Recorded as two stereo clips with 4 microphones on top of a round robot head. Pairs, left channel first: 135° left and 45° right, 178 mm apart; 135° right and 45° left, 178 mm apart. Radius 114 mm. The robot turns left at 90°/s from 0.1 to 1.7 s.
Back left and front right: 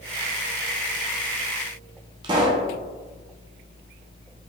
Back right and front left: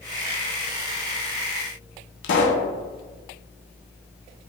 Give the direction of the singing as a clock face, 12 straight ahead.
No singing in this recording.